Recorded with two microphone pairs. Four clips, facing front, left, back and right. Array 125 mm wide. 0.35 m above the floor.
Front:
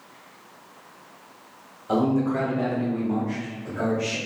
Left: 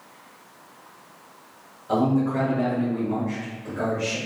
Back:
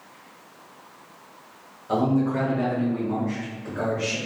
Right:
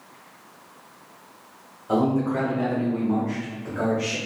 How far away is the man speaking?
About 1.2 m.